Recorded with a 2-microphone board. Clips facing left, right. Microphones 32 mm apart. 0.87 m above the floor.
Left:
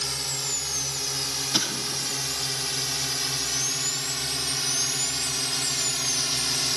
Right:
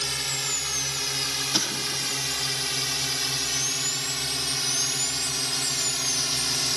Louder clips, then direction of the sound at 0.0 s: Right 2 dB; 30° right (ahead or behind).